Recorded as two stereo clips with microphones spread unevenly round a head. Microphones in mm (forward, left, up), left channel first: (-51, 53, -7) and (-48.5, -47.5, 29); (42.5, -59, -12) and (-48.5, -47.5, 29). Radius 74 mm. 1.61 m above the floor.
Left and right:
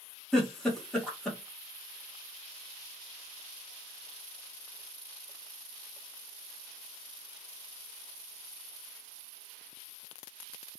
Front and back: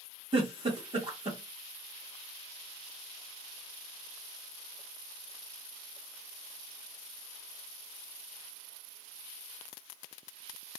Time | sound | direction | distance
0.3 | a giggle | 175° right | 1.4 m